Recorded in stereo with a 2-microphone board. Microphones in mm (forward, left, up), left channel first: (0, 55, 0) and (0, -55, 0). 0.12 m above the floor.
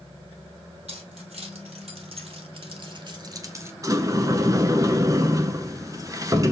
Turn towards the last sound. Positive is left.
turn(degrees=-30)  # may be behind; listen again after turning